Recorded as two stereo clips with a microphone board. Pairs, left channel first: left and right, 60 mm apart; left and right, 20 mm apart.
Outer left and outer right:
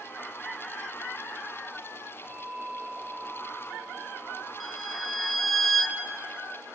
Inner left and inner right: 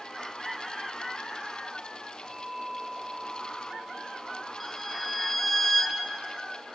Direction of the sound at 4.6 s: Centre (ahead or behind).